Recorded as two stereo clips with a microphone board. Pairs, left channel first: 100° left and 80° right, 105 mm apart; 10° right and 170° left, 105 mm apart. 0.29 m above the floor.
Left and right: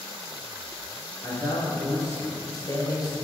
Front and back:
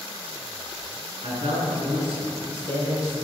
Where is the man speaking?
165° left, 4.5 m; by 3.1 s 150° left, 5 m.